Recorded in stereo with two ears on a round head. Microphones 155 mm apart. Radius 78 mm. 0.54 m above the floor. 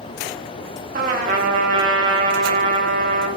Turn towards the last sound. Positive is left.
turn(degrees=-50)  # may be behind; listen again after turning